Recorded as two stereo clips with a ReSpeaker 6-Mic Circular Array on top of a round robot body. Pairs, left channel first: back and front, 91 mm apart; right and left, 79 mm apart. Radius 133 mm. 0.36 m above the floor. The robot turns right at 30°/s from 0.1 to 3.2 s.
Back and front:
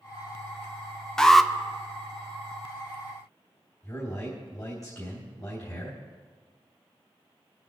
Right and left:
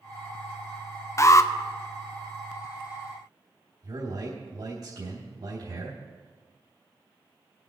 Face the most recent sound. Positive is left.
turn(degrees=125)